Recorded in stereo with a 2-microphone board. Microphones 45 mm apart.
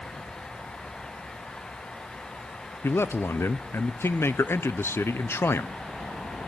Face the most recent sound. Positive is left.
turn(degrees=60)  # may be behind; listen again after turning